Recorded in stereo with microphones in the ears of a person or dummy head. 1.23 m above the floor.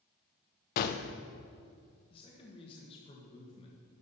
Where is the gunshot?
45° left (ahead or behind), 0.5 m.